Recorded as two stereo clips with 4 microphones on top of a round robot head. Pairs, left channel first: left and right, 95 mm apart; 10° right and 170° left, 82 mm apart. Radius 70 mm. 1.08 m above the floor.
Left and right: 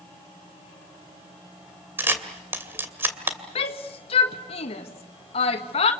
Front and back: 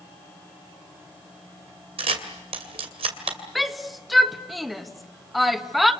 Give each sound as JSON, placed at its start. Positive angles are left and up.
{"t": 2.0, "sound": "a camera shutter", "azimuth_deg": -160, "distance_m": 2.5}
{"t": 3.5, "sound": "a shout", "azimuth_deg": 80, "distance_m": 1.7}